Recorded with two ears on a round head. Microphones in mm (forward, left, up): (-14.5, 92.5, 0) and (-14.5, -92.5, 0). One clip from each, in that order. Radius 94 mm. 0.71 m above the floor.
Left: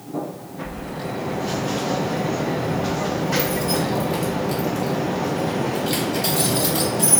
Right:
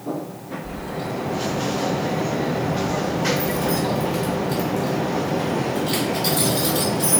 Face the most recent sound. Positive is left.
turn(degrees=80)